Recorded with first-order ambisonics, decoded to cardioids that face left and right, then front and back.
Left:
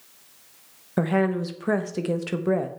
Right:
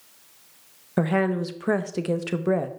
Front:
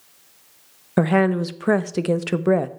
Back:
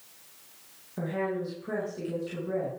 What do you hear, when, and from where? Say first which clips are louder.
1.0 s a woman speaking: even, front 12 dB; 5° right, 0.6 m